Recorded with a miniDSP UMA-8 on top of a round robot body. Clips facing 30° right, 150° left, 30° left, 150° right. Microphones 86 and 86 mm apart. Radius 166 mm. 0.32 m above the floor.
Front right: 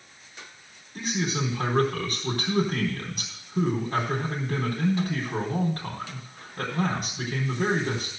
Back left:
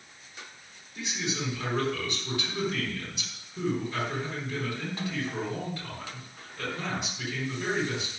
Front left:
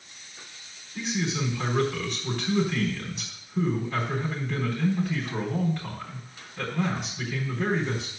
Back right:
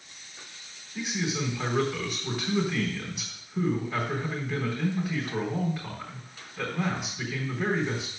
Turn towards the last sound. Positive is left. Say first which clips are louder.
# front right 5 dB, front left 1 dB
turn(degrees=-70)